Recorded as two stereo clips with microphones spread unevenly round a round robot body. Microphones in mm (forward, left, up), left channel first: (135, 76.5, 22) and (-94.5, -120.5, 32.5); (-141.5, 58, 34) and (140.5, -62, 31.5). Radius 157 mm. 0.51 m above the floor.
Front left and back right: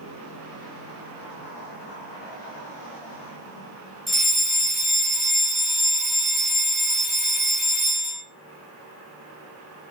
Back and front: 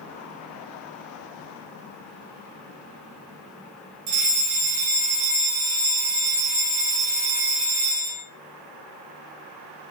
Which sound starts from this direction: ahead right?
A fire alarm, at 4.1 s.